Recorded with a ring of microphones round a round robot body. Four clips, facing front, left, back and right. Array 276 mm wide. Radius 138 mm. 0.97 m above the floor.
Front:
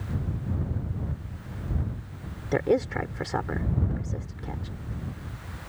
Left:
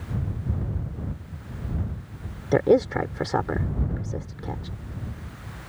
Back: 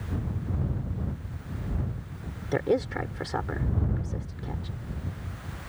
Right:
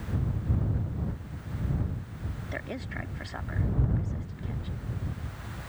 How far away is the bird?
I don't hear a bird.